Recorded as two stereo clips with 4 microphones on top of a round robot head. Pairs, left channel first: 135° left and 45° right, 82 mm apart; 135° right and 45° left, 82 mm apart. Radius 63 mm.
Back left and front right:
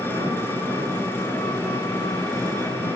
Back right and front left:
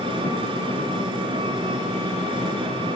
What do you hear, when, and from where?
0.0 s an engine running: 70° left, 8.5 m